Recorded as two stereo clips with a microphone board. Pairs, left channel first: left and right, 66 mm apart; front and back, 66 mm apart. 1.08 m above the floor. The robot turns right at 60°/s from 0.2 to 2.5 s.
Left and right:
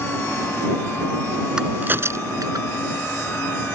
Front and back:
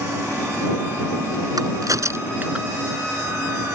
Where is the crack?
170° right; by 2.7 s 115° right.